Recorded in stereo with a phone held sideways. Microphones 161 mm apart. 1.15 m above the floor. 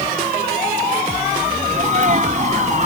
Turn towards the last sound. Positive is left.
turn(degrees=-50)  # may be behind; listen again after turning